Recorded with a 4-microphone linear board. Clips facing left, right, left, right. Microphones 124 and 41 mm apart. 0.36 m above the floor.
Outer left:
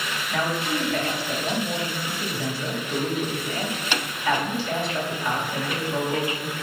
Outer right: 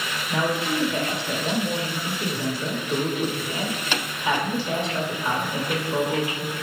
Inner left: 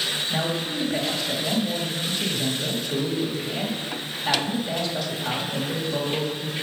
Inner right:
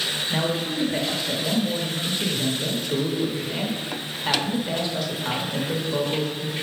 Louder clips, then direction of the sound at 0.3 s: Outer right 2 dB, inner right 1 dB; 20° right (ahead or behind).